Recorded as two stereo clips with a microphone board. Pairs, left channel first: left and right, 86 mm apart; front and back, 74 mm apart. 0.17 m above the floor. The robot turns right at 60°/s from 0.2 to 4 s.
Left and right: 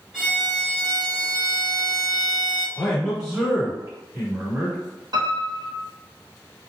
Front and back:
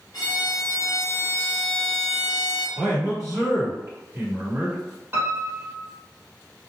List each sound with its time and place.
0.1 s a violin: 5° right, 1.0 m; by 2.7 s 140° left, 1.0 m
2.8 s a man speaking: 155° left, 1.8 m; by 4.8 s 130° right, 1.8 m
5.1 s a piano: 120° right, 1.5 m